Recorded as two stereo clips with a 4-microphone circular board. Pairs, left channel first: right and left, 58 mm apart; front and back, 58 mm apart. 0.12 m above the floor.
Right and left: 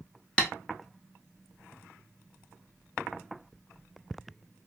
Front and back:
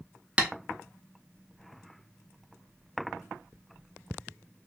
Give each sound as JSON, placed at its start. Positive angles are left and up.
{"t": 0.4, "sound": "tapping", "azimuth_deg": -140, "distance_m": 0.6}